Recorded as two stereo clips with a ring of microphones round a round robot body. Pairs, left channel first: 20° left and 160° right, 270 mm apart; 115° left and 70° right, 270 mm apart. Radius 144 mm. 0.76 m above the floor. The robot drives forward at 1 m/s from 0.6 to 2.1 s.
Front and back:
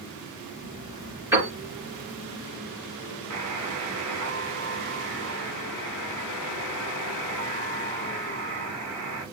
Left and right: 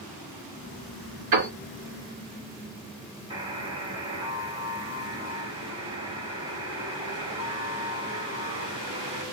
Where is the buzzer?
140° right, 2.5 m.